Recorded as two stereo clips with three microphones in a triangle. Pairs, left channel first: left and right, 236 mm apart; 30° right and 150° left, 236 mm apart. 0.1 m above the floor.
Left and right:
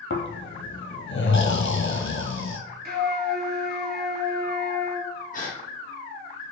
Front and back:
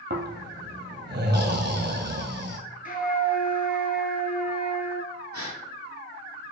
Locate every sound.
0.1 s snoring: 115° left, 0.7 m
2.9 s a flute: 65° right, 0.7 m
5.3 s a gasp: 145° left, 1.3 m